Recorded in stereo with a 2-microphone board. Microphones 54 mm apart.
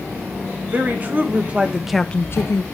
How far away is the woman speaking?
About 1.8 m.